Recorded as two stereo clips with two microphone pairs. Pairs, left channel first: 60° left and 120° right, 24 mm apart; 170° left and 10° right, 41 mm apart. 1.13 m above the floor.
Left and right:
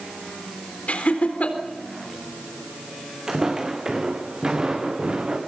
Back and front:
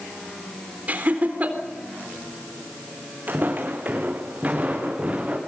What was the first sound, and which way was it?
Laughter, 40° left.